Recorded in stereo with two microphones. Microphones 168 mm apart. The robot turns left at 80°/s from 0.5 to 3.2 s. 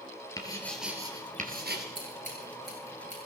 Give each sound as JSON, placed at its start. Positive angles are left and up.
{"t": 0.4, "sound": "writing", "azimuth_deg": 20, "distance_m": 3.0}
{"t": 1.9, "sound": "scissors", "side_deg": -30, "distance_m": 7.0}